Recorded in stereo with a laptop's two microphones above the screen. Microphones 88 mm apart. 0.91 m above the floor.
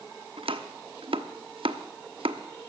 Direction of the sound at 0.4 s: 85° right.